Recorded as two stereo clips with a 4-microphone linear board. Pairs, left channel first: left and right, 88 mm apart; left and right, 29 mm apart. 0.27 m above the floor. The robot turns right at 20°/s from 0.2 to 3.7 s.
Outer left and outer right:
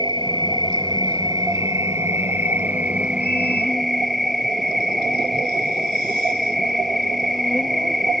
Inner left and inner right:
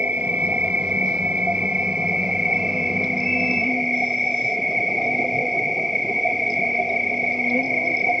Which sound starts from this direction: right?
An insect, at 0.0 s.